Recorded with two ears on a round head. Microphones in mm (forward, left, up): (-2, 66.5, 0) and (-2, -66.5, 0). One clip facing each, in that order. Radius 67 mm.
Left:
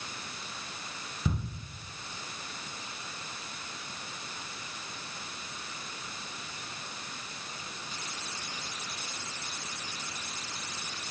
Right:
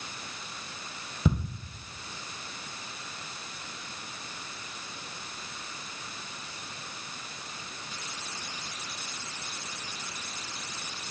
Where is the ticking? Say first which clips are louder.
Right 6 dB; 65° right (ahead or behind), 2.5 m.